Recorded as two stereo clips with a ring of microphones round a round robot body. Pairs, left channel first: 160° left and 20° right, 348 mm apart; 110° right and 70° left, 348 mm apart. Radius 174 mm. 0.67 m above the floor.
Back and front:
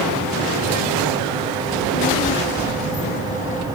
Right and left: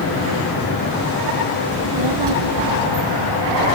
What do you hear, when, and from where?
1.7 s a child speaking: 90° left